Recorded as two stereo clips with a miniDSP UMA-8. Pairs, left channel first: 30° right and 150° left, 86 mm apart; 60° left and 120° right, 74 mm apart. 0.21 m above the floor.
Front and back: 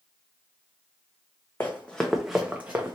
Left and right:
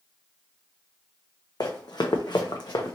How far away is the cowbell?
I don't hear a cowbell.